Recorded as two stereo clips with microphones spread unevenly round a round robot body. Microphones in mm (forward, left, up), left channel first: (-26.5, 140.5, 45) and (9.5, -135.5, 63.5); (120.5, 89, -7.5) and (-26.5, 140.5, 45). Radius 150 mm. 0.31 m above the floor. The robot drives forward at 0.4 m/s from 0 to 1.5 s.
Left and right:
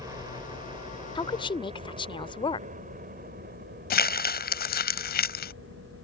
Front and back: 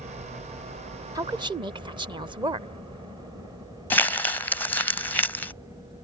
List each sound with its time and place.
0.0 s a helicopter: 155° right; by 6.0 s 95° right
1.1 s a woman speaking: 80° left; by 2.7 s 100° left
3.9 s crumpling: 45° left